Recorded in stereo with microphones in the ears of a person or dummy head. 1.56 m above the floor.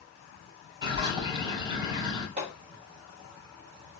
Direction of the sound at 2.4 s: 45° right (ahead or behind).